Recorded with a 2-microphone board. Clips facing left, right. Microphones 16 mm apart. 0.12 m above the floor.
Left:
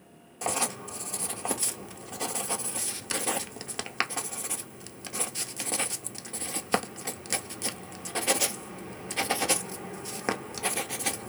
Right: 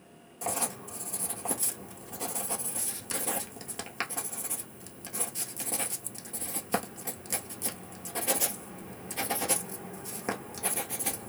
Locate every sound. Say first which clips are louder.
0.4 s writing: left 4 dB; 35° left (ahead or behind), 0.7 m